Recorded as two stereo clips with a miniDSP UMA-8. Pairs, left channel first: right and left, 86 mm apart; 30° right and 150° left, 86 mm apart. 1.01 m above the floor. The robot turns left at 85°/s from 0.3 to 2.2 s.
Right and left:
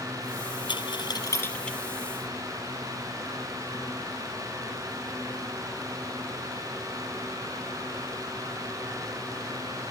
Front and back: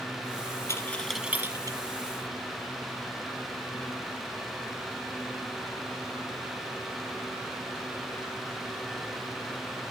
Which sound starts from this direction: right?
A dropped coin, at 0.7 s.